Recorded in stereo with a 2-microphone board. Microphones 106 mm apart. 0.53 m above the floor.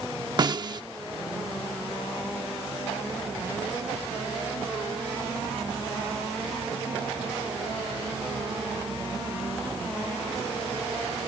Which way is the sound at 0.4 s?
40° right (ahead or behind).